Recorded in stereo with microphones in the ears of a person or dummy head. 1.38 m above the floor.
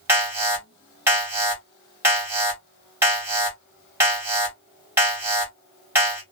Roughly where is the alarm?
Centre.